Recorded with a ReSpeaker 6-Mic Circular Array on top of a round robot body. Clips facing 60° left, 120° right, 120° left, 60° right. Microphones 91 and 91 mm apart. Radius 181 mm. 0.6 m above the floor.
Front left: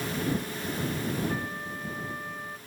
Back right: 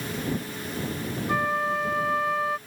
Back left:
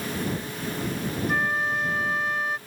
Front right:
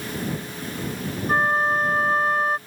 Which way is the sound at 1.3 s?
110° right.